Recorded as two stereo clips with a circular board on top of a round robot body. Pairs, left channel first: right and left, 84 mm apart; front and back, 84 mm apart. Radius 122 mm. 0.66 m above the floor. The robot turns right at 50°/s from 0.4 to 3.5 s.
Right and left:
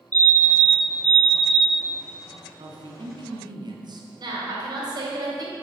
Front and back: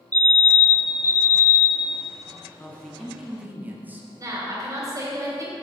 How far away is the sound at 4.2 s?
About 3 m.